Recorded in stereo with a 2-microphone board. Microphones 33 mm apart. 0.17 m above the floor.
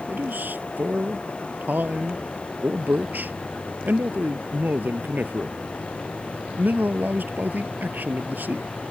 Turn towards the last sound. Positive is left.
turn(degrees=-65)  # may be behind; listen again after turning